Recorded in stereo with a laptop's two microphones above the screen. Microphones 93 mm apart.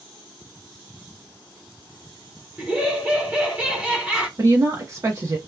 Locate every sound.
2.6 s laughter: 15° right (ahead or behind), 0.9 m
4.4 s a woman speaking: 35° right (ahead or behind), 0.6 m